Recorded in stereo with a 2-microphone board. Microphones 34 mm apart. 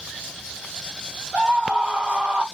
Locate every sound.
1.3 s a scream: 40° right (ahead or behind), 4.5 m